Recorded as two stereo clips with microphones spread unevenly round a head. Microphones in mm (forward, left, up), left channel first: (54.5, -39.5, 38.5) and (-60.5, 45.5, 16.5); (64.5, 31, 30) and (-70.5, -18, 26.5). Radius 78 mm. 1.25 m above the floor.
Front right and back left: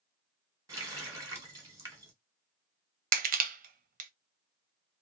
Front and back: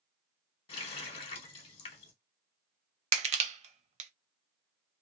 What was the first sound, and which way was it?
A running tap, 70° left.